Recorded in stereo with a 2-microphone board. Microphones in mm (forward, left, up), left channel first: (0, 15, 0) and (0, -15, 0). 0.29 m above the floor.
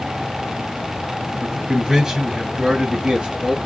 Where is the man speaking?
5° right (ahead or behind), 1.9 m; by 3.6 s 35° right (ahead or behind), 1.5 m.